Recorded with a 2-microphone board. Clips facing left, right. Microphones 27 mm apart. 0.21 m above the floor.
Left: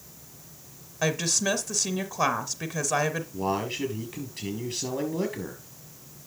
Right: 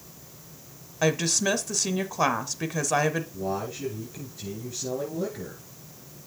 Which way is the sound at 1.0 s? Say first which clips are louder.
Right 2 dB; 10° right (ahead or behind).